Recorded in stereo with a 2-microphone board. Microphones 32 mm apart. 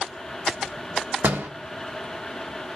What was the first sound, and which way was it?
A door slam, 75° right (ahead or behind).